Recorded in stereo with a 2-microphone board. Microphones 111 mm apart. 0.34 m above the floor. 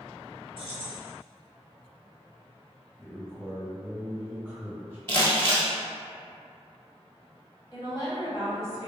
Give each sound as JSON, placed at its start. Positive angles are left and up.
{"t": 0.6, "sound": "keys jangling", "side_deg": 50, "distance_m": 0.8}
{"t": 3.0, "sound": "a man speaking", "side_deg": -20, "distance_m": 1.8}
{"t": 5.1, "sound": "crumpling", "side_deg": 20, "distance_m": 1.1}
{"t": 7.7, "sound": "a woman speaking", "side_deg": 25, "distance_m": 1.2}